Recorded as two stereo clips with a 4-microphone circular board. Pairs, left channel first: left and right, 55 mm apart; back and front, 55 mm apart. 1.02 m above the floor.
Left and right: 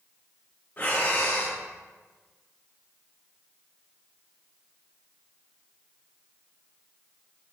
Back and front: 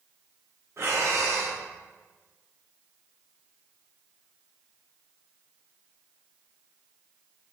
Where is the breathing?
35° left, 1.1 m.